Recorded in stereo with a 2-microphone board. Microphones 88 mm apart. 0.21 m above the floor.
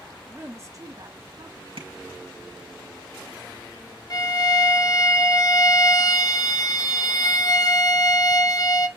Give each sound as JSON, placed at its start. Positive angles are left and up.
{"t": 0.2, "sound": "a woman speaking", "side_deg": -15, "distance_m": 1.2}
{"t": 1.8, "sound": "tapping", "side_deg": -75, "distance_m": 4.0}
{"t": 4.1, "sound": "a violin", "side_deg": 45, "distance_m": 1.1}